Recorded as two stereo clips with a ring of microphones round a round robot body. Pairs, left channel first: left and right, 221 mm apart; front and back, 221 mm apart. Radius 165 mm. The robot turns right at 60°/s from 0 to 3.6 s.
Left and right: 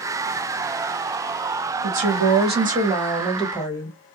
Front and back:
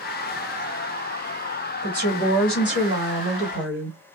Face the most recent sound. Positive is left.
turn(degrees=15)